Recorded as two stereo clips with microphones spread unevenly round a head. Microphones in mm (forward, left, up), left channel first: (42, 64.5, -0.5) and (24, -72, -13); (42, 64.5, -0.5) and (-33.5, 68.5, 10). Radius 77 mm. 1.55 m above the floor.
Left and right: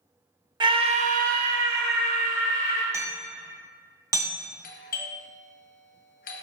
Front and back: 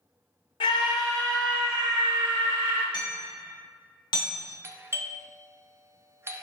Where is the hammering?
30° right, 0.8 m.